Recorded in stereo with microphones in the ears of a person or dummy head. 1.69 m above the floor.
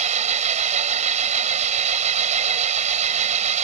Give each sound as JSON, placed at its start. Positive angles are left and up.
{"t": 0.0, "sound": "an engine running", "side_deg": -40}